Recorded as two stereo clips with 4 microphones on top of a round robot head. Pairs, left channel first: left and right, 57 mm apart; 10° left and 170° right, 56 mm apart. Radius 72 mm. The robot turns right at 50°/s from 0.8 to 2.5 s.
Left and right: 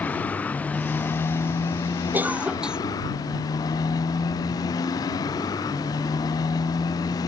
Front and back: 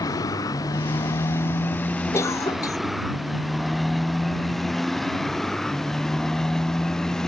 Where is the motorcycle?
25° left; by 7.3 s 95° left.